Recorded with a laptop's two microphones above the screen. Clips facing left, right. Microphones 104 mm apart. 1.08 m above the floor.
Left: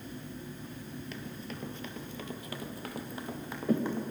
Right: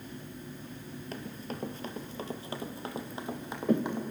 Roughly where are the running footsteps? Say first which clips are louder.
Right 2 dB; right.